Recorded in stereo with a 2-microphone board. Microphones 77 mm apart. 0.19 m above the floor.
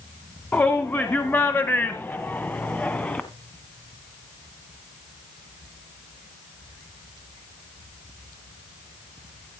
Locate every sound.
0.5 s a shout: 25° left (ahead or behind), 1.7 m; by 3.2 s 15° left (ahead or behind), 1.7 m